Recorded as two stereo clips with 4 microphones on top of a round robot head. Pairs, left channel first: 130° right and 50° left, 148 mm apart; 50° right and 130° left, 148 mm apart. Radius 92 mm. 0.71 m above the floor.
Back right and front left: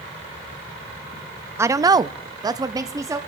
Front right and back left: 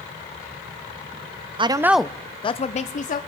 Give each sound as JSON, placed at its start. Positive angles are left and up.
{"t": 1.6, "sound": "a woman speaking", "azimuth_deg": 110, "distance_m": 0.5}